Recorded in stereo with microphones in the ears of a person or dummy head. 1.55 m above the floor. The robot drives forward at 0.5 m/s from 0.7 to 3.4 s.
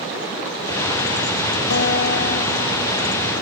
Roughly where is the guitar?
Left.